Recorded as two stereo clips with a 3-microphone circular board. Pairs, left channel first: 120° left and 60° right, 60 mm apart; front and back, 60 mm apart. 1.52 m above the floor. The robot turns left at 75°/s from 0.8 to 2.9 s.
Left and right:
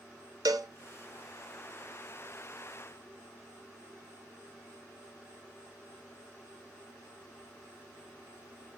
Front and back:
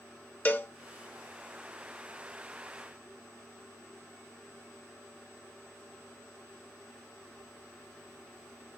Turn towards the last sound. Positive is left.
turn(degrees=140)